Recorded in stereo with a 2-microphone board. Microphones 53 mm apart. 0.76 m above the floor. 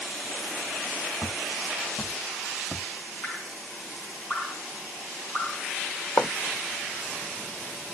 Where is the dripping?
35° left (ahead or behind), 2.5 m.